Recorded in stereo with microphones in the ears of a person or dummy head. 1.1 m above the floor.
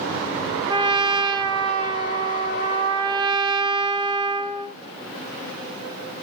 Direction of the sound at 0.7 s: 25° right (ahead or behind).